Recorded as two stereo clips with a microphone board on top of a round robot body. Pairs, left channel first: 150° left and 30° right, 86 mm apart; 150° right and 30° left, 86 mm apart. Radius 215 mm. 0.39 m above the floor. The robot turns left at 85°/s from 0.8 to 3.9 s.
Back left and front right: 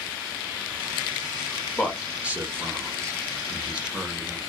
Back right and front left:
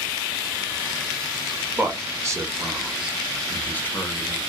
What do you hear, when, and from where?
1.8 s a man speaking: 75° left, 1.1 m; by 4.4 s 105° right, 1.1 m